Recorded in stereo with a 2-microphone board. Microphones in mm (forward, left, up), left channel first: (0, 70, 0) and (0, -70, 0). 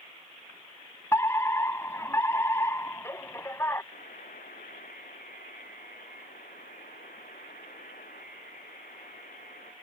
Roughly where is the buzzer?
Left.